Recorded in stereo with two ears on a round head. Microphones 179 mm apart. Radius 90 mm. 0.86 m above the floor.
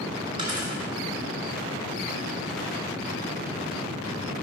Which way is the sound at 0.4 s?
30° right (ahead or behind).